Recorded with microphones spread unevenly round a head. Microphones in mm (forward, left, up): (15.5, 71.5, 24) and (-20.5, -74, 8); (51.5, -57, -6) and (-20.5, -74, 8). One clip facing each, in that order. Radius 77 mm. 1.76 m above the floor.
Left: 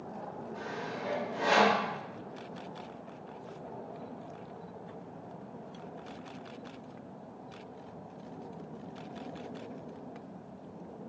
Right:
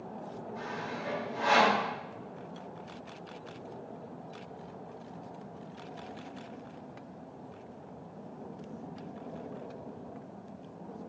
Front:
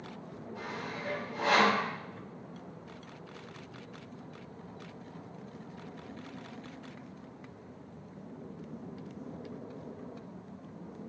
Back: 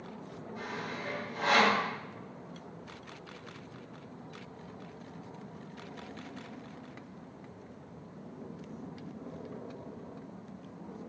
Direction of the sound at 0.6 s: 80° left.